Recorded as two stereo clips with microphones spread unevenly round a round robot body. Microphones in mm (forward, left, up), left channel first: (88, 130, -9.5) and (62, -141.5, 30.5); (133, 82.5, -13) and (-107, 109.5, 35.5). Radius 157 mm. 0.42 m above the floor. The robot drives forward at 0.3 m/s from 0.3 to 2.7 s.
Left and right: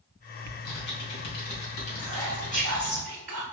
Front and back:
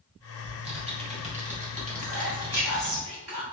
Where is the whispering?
155° right, 1.7 m; by 3.4 s 160° right, 1.9 m.